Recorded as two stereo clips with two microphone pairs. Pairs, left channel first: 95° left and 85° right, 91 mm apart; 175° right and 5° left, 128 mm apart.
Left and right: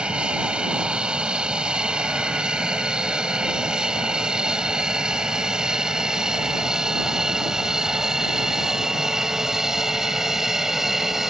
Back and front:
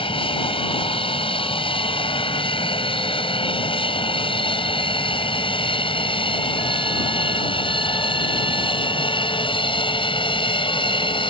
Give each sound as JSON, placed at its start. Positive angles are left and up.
{"t": 0.0, "sound": "an aircraft", "azimuth_deg": -160}